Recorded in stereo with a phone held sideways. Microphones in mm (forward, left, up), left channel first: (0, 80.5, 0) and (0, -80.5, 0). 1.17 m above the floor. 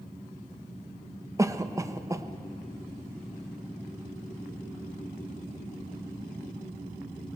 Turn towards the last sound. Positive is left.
turn(degrees=-20)  # may be behind; listen again after turning